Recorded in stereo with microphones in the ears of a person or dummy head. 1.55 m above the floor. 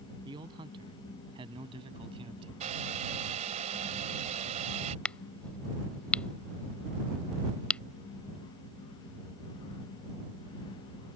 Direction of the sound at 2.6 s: 40° right (ahead or behind).